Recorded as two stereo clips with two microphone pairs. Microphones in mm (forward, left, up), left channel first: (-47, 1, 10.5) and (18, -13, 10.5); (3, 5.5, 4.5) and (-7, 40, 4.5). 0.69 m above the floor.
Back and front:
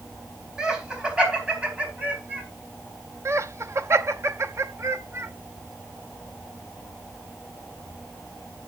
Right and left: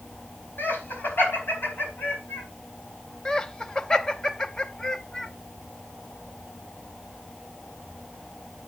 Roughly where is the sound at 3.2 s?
Ahead.